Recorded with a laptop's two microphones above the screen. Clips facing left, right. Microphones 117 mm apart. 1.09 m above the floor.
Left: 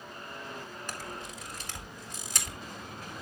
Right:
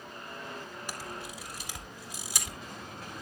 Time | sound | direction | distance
0.9 | a camera shutter | 10° right (ahead or behind) | 4.5 m